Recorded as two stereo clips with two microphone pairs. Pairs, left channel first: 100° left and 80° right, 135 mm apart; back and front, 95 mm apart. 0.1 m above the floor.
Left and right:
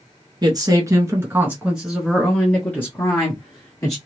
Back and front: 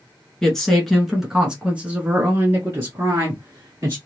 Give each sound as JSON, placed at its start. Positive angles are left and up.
{"t": 0.4, "sound": "a woman speaking", "azimuth_deg": -100, "distance_m": 1.3}